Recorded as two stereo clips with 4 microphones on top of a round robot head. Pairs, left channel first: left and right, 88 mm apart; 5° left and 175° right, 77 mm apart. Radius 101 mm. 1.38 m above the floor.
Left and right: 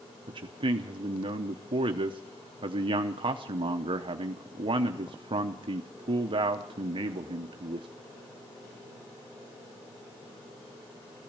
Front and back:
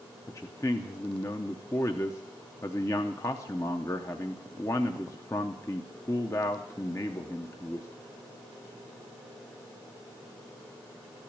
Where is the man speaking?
55° right, 0.7 m.